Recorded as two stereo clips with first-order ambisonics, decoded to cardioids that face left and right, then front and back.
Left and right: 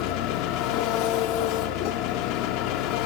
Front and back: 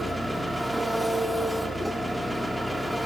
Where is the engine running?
90° left, 1.7 m.